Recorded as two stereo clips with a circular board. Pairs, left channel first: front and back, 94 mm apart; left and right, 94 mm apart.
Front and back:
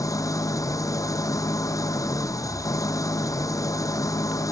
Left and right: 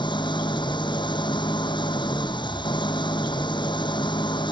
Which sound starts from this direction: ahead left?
An engine running, at 0.0 s.